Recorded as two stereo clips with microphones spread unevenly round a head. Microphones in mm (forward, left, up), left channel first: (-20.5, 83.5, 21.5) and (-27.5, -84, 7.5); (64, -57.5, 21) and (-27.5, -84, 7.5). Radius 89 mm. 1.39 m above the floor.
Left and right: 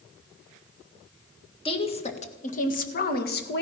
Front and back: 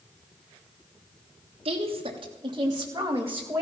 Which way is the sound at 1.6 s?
145° left.